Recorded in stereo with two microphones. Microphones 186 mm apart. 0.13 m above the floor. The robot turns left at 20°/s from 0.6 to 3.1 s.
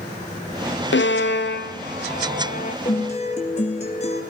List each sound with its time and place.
0.9 s a violin: 80° left, 1.5 m; by 2.8 s 45° left (ahead or behind), 1.5 m
2.9 s a guitar: 40° left (ahead or behind), 3 m; by 4.2 s 35° left (ahead or behind), 3 m